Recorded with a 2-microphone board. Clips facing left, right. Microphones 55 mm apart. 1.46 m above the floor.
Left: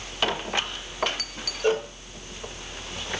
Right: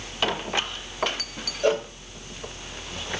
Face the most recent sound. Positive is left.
turn(degrees=-80)